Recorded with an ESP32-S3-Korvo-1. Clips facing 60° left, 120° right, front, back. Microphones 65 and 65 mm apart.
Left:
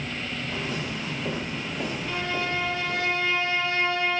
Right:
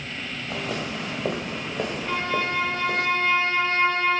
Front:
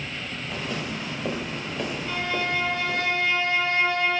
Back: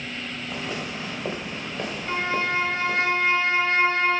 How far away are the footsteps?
About 3.5 m.